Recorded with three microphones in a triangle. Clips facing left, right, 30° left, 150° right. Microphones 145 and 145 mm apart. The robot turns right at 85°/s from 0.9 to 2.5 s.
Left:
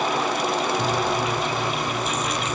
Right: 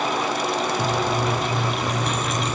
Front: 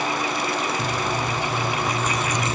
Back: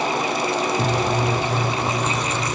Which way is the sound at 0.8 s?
170° right.